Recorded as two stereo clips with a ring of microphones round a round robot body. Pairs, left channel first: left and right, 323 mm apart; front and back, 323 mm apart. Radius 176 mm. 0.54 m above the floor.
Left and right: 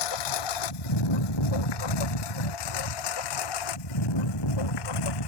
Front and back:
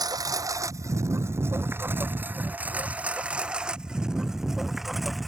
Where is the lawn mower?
100° left; by 5.3 s 90° left.